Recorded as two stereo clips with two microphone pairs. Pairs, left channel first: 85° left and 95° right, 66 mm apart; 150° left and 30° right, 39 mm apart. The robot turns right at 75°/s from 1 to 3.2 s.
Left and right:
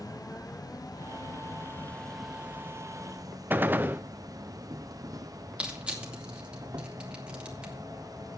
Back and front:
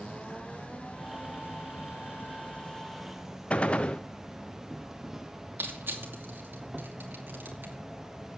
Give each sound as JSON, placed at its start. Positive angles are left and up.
{"t": 0.0, "sound": "an insect", "azimuth_deg": 85, "distance_m": 1.0}
{"t": 3.5, "sound": "a gunshot", "azimuth_deg": -155, "distance_m": 0.6}
{"t": 5.6, "sound": "crushing", "azimuth_deg": -25, "distance_m": 2.5}